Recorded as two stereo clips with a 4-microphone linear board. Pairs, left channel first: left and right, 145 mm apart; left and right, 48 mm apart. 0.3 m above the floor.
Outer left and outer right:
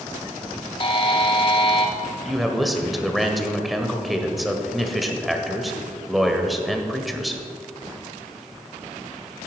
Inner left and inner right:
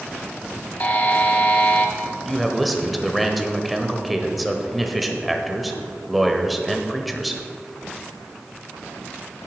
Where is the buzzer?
35° left (ahead or behind), 1.6 m.